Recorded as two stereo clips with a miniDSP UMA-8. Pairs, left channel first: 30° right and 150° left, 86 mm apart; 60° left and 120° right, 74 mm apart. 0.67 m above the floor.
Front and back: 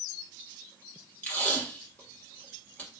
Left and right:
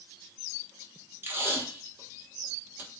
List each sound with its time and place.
1.2 s tape being pulled: 90° right, 1.4 m